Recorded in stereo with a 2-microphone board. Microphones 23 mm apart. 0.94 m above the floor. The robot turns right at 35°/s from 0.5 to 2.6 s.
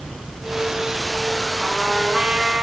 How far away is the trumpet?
About 9 m.